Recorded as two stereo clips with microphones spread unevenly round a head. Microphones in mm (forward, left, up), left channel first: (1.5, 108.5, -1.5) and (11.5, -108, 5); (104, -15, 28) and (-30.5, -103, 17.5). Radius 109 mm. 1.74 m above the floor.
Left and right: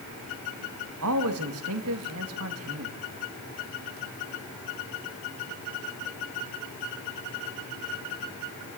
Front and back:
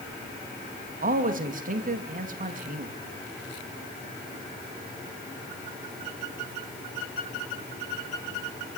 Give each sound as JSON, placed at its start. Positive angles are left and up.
{"t": 1.0, "sound": "a man speaking", "azimuth_deg": -110, "distance_m": 2.5}